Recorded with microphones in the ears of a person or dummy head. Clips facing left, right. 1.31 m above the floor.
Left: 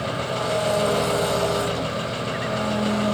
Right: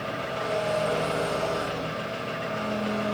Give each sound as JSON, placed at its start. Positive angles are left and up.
{"t": 0.0, "sound": "an engine running", "side_deg": 55, "distance_m": 2.0}